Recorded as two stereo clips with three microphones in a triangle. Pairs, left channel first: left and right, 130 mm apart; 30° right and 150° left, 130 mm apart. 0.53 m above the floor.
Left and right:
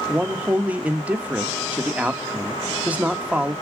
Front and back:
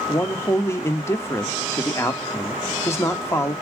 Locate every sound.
0.1 s a man speaking: 35° right, 0.7 m